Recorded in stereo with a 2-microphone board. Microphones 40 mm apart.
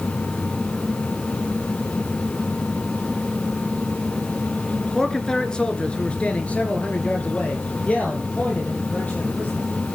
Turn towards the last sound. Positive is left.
turn(degrees=40)  # may be behind; listen again after turning